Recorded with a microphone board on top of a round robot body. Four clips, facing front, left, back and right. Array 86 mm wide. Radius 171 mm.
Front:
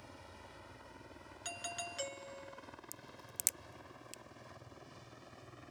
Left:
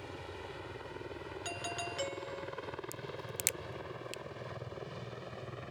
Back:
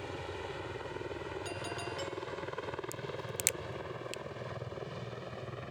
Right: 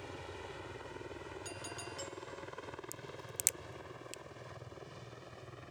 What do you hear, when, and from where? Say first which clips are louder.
0.0 s a helicopter: left 1 dB, back 14 dB; 175° left; by 5.7 s 150° left
1.4 s a doorbell: left 6 dB, back 6 dB; 80° left
2.9 s a crack: left 5 dB, back 14 dB; 155° left